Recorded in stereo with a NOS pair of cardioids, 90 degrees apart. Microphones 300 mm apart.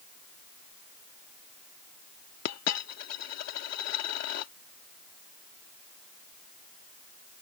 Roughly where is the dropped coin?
Ahead left.